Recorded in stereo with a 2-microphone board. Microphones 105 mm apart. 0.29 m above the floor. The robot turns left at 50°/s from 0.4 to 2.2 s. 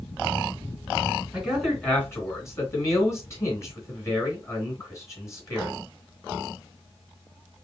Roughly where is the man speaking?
Centre.